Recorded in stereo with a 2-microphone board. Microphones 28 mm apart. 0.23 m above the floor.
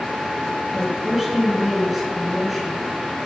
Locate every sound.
0.7 s a woman speaking: 10° right (ahead or behind), 2.5 m